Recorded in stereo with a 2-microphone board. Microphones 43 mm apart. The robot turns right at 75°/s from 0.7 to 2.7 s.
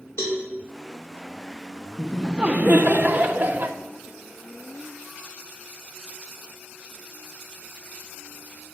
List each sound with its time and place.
0.2 s a cowbell: 80° left, 1.9 m
2.0 s laughter: 175° left, 0.6 m; by 3.8 s 130° right, 0.6 m